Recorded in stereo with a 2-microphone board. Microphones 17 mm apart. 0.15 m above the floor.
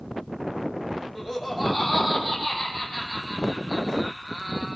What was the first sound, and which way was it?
Laughter, 5° right (ahead or behind).